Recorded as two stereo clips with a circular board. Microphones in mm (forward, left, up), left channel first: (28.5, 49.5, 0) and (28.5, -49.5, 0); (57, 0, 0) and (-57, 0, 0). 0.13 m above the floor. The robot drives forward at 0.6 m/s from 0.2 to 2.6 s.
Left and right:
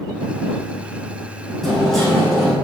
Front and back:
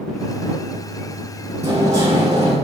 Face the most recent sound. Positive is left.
turn(degrees=175)